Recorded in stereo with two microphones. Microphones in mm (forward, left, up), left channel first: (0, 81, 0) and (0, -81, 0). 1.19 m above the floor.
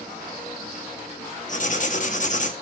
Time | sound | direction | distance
1.5 | writing | 50° left (ahead or behind) | 0.8 m